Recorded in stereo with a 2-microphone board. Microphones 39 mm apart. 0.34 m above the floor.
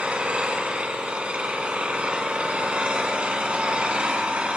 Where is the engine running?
30° right (ahead or behind), 1.5 m.